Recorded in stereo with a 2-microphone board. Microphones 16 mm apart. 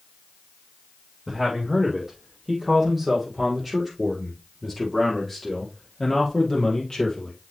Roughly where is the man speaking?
Centre.